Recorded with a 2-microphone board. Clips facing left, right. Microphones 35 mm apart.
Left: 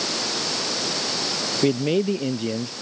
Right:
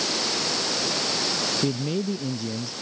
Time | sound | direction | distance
1.6 | a man speaking | 45° left (ahead or behind) | ?